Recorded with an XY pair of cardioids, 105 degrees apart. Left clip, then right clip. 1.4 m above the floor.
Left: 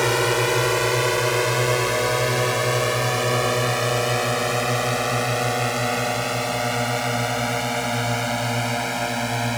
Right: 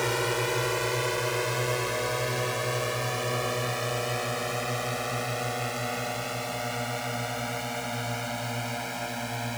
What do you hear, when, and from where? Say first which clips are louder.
0.0 s a drone: left 7 dB; 45° left; by 9.6 s 55° left